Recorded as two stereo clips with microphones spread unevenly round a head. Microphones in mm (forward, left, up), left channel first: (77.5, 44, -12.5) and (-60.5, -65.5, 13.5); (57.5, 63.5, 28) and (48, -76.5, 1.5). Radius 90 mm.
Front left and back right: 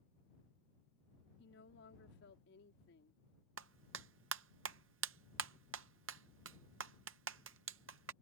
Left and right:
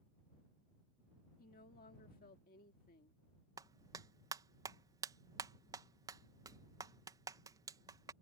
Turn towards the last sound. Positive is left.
turn(degrees=-165)